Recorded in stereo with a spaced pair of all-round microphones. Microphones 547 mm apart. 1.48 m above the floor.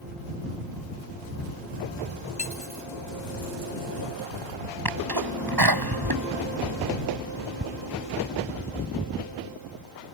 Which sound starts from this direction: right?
A sneeze, at 4.8 s.